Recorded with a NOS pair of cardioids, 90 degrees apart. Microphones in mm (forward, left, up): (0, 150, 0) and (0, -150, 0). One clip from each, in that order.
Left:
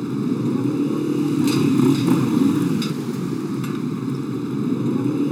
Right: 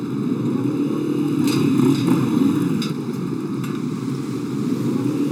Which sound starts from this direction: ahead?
A motorcycle, at 0.0 s.